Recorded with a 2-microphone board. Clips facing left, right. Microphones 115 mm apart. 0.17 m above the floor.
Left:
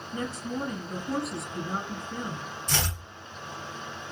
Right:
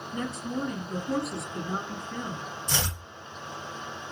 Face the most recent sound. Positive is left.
turn(degrees=-15)  # may be behind; listen again after turning